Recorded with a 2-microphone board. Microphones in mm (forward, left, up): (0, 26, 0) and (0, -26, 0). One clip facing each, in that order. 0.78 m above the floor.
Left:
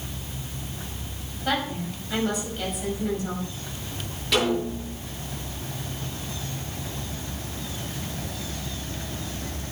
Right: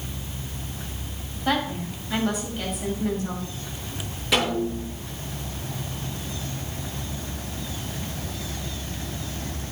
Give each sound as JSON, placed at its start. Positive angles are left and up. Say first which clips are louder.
{"t": 1.4, "sound": "a woman speaking", "louder": "right 2 dB", "side_deg": -5, "distance_m": 5.5}
{"t": 4.3, "sound": "a snare drum", "louder": "even", "side_deg": -15, "distance_m": 9.0}